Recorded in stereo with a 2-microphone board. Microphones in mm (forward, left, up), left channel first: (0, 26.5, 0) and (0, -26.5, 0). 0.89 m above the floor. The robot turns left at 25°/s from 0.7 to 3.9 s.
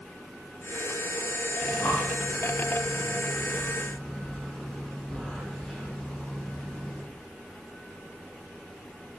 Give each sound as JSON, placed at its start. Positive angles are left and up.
{"t": 1.6, "sound": "breathing", "side_deg": 70, "distance_m": 4.0}